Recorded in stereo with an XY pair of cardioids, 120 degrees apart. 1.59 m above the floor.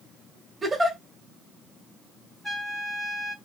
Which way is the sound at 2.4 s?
10° left.